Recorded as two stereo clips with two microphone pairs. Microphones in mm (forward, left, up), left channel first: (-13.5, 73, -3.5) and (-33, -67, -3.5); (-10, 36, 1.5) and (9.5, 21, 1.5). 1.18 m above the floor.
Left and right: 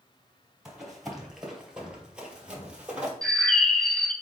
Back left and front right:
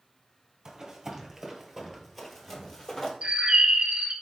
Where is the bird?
5° right, 0.5 m.